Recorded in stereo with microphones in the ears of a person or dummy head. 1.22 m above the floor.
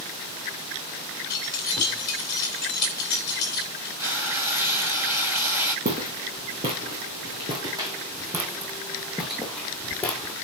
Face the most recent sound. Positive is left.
turn(degrees=15)  # may be behind; listen again after turning